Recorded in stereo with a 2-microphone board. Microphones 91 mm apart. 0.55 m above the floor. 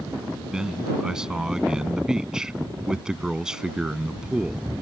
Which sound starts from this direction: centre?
A man speaking, at 0.5 s.